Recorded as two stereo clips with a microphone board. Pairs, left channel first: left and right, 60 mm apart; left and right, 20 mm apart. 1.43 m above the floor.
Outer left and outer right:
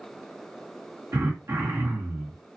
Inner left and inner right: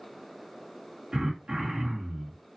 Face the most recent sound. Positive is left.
turn(degrees=-55)  # may be behind; listen again after turning